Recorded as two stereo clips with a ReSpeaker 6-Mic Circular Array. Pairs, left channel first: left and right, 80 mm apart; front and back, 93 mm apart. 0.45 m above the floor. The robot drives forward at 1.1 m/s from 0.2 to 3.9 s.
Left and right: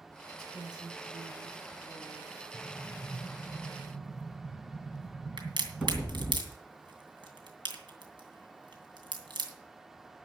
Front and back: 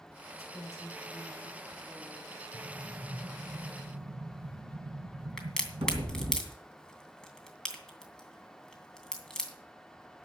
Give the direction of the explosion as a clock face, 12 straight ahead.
6 o'clock.